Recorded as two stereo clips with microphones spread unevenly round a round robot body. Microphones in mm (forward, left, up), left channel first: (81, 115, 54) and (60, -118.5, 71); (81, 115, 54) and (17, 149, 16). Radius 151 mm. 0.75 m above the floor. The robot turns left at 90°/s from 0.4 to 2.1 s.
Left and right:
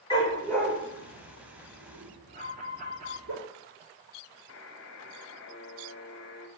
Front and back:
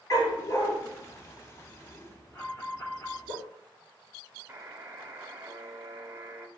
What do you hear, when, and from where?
0.1 s a dog barking: 10° left, 5 m; by 3.3 s 140° right, 5 m
2.3 s an alarm: 120° right, 1.4 m
4.5 s a buzzer: 120° left, 1.1 m